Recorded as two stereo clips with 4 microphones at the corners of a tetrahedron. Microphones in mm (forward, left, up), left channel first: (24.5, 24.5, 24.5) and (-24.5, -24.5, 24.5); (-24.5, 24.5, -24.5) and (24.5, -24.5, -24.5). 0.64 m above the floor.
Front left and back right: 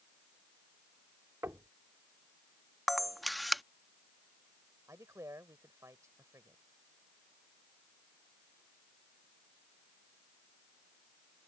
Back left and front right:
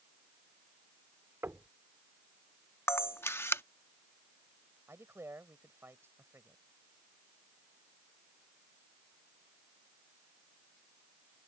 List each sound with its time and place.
1.4 s knocking: 95° right
2.9 s a camera shutter: 135° left
4.9 s a man speaking: 100° right